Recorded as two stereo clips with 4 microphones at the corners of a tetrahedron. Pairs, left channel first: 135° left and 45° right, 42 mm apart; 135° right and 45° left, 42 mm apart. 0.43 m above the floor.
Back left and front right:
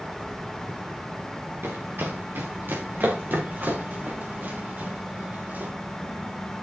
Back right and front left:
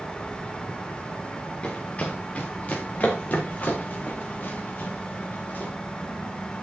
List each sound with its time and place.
1.6 s running footsteps: 70° right, 3.5 m; by 5.7 s 90° right, 6.5 m